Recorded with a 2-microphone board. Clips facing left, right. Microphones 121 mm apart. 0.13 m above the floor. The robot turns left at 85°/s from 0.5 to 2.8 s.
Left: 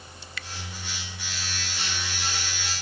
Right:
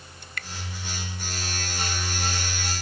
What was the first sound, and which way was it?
Dripping, 50° right (ahead or behind).